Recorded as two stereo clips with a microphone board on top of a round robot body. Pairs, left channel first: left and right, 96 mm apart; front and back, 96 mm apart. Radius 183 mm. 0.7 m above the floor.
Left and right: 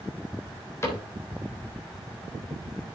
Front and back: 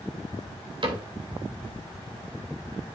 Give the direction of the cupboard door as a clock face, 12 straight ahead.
7 o'clock.